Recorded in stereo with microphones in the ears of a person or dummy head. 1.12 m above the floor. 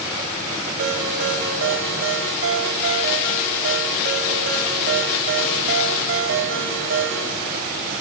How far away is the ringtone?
About 2.5 m.